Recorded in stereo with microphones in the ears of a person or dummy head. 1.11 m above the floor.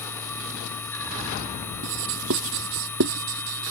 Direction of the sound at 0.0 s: 10° left (ahead or behind).